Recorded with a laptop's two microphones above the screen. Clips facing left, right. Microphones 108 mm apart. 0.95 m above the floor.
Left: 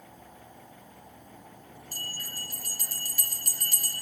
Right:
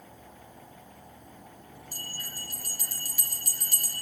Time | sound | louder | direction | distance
1.9 | a bell | left 1 dB | 10° right (ahead or behind) | 5 m